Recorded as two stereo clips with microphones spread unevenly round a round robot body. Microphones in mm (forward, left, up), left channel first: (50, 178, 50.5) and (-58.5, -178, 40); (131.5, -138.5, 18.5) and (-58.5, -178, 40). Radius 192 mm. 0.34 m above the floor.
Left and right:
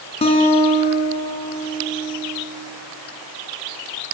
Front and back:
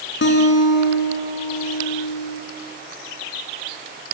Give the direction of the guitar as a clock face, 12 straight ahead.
12 o'clock.